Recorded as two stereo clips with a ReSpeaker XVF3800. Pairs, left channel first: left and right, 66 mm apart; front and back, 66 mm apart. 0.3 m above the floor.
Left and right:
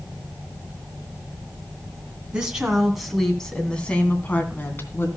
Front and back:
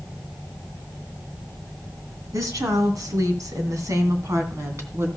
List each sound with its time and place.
2.3 s a woman speaking: 165° right, 2.5 m; by 5.1 s 135° left, 2.5 m